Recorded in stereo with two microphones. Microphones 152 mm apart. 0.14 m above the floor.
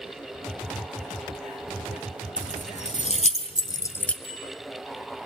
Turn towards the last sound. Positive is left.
turn(degrees=40)  # may be behind; listen again after turning